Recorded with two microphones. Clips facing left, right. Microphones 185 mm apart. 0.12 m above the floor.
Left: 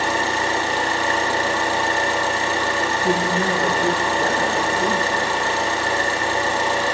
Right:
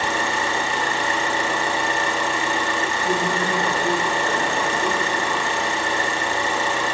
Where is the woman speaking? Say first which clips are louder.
Left 3 dB; 55° left (ahead or behind), 3.5 m.